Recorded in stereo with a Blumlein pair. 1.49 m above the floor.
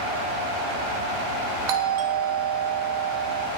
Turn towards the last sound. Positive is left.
turn(degrees=-45)